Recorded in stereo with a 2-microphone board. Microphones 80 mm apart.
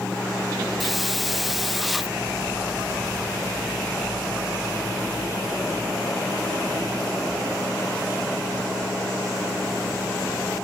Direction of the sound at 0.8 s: Centre (ahead or behind).